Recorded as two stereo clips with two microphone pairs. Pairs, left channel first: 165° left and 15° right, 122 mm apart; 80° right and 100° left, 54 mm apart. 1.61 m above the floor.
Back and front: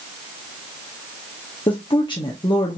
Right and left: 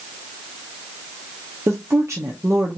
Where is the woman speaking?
115° left, 0.8 m.